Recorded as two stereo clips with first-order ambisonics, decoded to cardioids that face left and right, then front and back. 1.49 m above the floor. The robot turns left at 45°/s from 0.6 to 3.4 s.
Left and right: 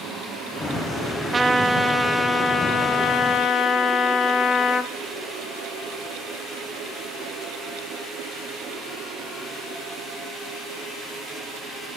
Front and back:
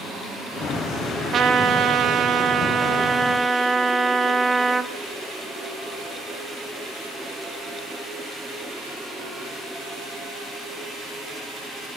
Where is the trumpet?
155° right, 0.9 m; by 4.9 s 115° left, 0.9 m.